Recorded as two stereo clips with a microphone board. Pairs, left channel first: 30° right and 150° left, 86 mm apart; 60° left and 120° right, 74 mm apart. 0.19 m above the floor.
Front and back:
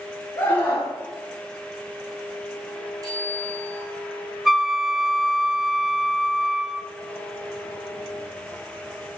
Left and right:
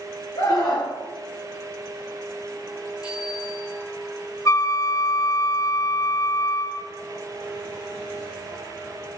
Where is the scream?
30° left, 3.5 m.